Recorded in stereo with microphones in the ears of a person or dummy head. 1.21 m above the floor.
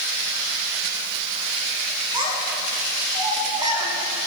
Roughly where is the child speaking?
Right.